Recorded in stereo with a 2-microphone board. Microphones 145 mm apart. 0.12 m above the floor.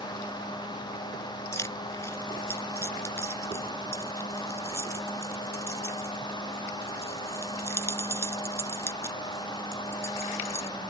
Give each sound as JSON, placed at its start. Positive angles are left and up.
{"t": 1.5, "sound": "keys jangling", "side_deg": 20}